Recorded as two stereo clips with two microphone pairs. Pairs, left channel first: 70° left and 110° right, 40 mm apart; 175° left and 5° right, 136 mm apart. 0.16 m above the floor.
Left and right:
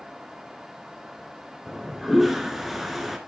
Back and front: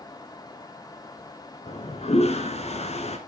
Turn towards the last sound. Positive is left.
turn(degrees=165)